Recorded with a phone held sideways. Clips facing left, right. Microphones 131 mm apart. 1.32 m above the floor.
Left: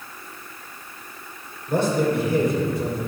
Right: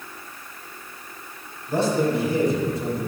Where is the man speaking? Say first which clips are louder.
Even; 60° left (ahead or behind), 5 m; by 3.1 s 65° left (ahead or behind), 6 m.